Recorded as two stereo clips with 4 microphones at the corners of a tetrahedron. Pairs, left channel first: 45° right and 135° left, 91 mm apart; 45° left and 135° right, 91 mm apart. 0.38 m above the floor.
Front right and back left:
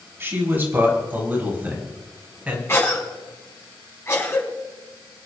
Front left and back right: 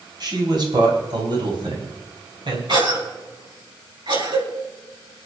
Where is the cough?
105° right, 6 m.